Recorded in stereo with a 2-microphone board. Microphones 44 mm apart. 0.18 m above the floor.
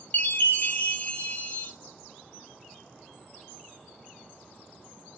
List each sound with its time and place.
0.1 s a chime: 40° left (ahead or behind), 0.9 m